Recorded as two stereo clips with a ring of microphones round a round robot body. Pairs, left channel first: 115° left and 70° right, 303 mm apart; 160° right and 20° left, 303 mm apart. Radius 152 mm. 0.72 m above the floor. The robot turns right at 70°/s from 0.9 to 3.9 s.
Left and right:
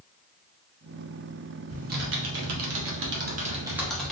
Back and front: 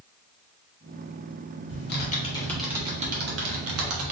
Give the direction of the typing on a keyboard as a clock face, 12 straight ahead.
4 o'clock.